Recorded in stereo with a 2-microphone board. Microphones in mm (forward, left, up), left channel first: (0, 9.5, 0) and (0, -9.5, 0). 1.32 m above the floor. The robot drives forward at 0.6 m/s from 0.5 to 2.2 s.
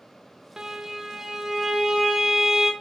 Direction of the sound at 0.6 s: 35° right (ahead or behind).